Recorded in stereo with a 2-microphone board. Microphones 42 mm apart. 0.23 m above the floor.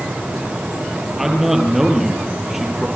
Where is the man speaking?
5° right (ahead or behind), 7 m.